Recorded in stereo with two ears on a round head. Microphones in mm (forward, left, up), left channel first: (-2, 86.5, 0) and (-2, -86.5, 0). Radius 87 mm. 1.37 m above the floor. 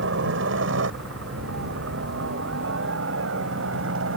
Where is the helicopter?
70° right (ahead or behind); by 4.2 s 75° right (ahead or behind).